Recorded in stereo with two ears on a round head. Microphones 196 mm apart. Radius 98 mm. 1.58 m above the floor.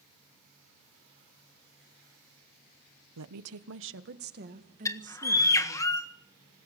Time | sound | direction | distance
3.2 | a woman speaking | 85° right | 1.0 m
4.8 | a bird | 15° left (ahead or behind) | 1.6 m